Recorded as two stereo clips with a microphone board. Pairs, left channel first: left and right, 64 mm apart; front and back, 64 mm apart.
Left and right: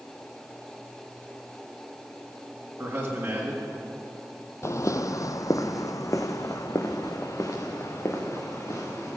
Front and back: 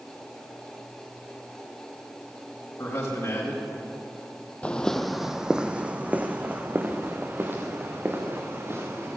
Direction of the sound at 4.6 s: 65° left.